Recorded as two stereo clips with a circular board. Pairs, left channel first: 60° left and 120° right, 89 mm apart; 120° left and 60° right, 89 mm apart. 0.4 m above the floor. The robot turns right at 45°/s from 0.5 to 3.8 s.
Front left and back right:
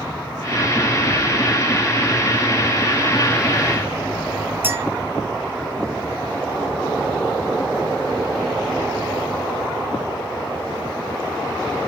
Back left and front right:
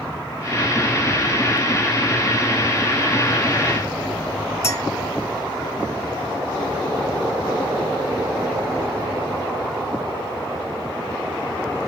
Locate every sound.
4.6 s a clink: straight behind, 1.6 m